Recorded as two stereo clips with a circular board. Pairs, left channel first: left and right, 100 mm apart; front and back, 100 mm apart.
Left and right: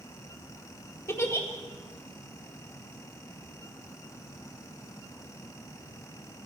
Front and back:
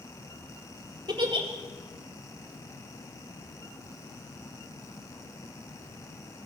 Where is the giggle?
150° left, 1.9 m.